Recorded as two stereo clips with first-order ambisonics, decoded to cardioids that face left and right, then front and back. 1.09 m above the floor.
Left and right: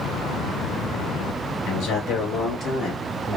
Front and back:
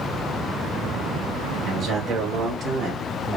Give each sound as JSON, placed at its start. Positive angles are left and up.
{"t": 1.7, "sound": "a man speaking", "azimuth_deg": 115, "distance_m": 1.3}